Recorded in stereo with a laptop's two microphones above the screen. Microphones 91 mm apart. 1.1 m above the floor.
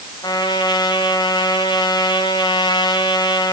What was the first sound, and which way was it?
A trumpet, 55° left (ahead or behind).